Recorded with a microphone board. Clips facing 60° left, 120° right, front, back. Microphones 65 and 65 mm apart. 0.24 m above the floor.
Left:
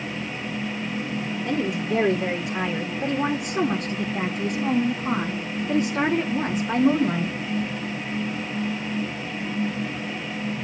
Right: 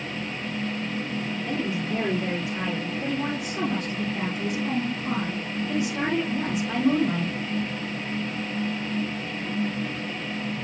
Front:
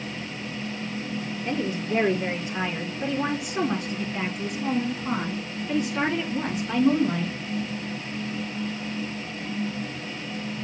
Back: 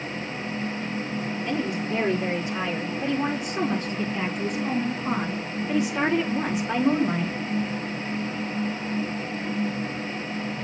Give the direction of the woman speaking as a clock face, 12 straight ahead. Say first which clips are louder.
Left 5 dB, front 1 dB; 10 o'clock.